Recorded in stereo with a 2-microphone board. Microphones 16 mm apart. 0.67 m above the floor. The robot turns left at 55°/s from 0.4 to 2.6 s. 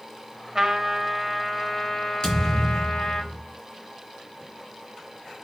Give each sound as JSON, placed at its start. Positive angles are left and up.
{"t": 0.6, "sound": "a trumpet", "azimuth_deg": -140, "distance_m": 1.4}
{"t": 2.2, "sound": "a thud", "side_deg": 40, "distance_m": 4.5}